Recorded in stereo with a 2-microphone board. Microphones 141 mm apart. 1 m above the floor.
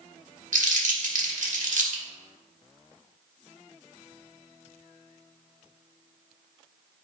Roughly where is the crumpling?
Right.